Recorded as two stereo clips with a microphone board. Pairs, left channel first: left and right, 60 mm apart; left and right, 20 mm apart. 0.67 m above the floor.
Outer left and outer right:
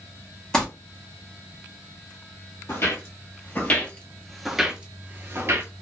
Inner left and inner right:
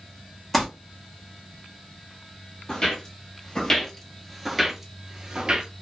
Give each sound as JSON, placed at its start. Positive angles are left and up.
{"t": 0.5, "sound": "crumpling", "side_deg": 10, "distance_m": 1.0}
{"t": 2.7, "sound": "footsteps", "side_deg": 45, "distance_m": 1.2}